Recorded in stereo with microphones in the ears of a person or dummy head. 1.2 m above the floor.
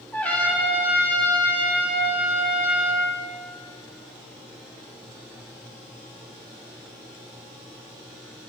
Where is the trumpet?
10° left (ahead or behind), 1.9 m.